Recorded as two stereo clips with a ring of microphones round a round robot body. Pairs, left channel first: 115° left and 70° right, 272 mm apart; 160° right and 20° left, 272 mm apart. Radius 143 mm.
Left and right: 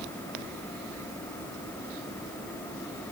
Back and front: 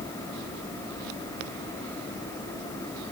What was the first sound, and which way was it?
Only background noise.